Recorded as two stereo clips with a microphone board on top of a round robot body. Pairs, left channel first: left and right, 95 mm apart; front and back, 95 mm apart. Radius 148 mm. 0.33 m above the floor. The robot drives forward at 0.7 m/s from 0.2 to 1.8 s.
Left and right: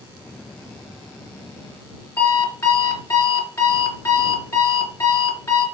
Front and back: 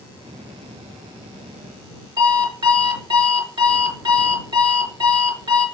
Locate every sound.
2.2 s an alarm clock: 150° left, 4 m